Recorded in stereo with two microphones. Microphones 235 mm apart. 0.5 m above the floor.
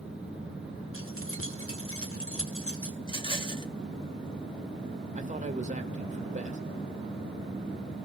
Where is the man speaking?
30° right (ahead or behind), 1.7 m.